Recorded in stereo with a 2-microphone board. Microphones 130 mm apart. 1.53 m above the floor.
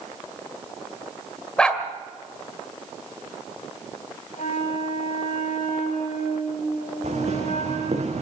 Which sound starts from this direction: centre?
A dog barking, at 1.6 s.